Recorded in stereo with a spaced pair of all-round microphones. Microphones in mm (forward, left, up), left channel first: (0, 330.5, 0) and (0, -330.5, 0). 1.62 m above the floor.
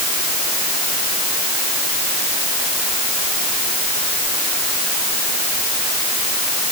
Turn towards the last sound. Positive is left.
No sound to turn to.